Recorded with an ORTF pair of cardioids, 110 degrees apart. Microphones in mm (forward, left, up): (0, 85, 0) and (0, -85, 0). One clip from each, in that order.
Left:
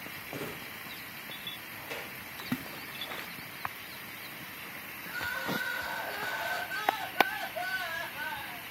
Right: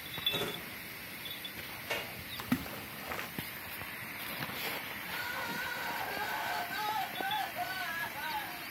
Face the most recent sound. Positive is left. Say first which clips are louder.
# left 5 dB
turn(degrees=25)